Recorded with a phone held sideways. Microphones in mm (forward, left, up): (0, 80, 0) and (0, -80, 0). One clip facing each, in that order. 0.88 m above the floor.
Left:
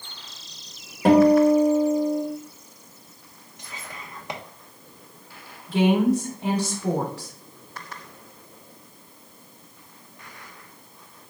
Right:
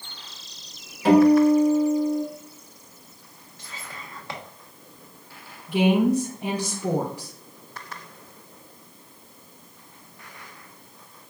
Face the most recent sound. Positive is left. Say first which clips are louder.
# even
turn(degrees=-20)  # may be behind; listen again after turning